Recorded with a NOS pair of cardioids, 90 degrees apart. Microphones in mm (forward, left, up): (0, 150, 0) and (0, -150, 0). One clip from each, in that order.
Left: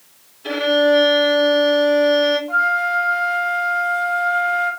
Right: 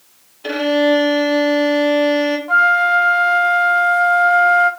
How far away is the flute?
About 0.8 m.